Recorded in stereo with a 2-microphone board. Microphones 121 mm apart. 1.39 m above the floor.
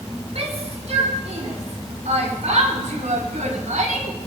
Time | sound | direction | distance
0.3 | a shout | 60° right (ahead or behind) | 5 m